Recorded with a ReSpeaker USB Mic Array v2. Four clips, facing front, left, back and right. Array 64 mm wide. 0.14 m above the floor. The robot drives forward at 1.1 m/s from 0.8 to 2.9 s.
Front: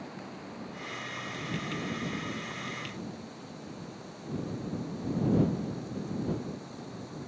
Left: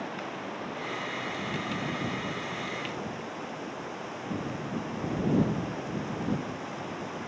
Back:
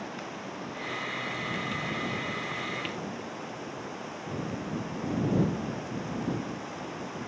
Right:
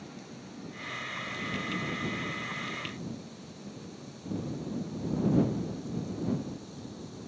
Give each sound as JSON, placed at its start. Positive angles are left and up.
{"t": 0.0, "sound": "running water", "azimuth_deg": 115}